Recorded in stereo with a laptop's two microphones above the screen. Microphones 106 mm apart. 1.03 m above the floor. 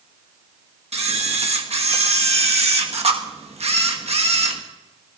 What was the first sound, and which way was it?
A camera shutter, 70° right (ahead or behind).